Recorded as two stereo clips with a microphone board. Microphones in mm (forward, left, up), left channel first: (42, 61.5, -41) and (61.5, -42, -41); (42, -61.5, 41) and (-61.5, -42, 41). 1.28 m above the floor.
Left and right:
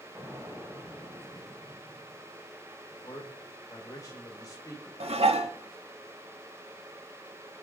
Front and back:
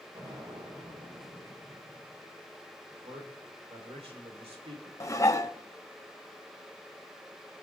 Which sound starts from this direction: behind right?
An explosion, at 0.1 s.